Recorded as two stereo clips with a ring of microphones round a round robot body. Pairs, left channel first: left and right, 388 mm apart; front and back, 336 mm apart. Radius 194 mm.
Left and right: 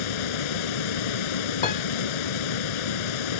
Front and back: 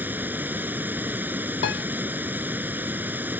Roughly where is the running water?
Left.